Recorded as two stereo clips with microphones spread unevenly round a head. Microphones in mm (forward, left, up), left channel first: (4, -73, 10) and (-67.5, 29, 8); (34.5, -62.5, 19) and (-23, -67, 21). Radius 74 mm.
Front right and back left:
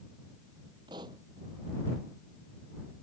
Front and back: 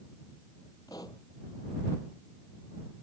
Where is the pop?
60° left.